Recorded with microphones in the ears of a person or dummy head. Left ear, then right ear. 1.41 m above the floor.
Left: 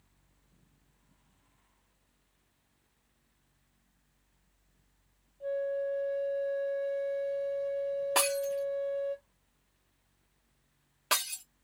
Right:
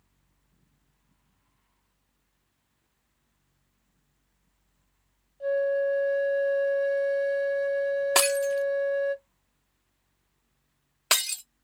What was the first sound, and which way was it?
A flute, 60° right (ahead or behind).